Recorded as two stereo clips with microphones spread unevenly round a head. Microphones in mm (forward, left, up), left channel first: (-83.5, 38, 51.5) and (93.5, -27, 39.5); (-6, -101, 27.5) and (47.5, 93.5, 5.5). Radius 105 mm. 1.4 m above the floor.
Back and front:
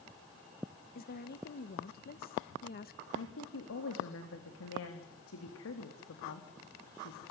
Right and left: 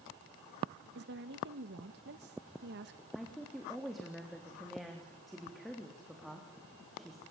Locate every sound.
0.9 s a woman speaking: 115° left, 1.6 m
3.1 s a woman speaking: 165° left, 3.5 m